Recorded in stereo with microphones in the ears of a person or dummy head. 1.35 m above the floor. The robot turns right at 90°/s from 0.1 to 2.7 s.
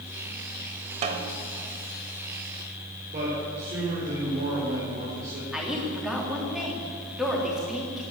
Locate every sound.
1.0 s a snare drum: 40° right (ahead or behind), 1.4 m; by 1.3 s 25° right (ahead or behind), 1.4 m
3.1 s a man speaking: 40° right (ahead or behind), 5 m
5.5 s a woman speaking: centre (ahead or behind), 3 m